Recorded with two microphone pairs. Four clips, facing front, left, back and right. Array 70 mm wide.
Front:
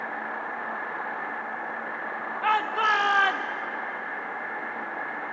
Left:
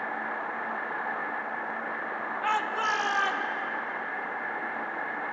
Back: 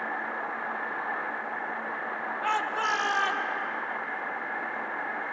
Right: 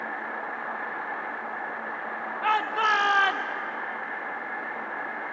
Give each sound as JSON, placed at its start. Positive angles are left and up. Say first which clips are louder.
{"t": 2.4, "sound": "a shout", "louder": "right 4 dB, front 5 dB", "azimuth_deg": -30, "distance_m": 1.0}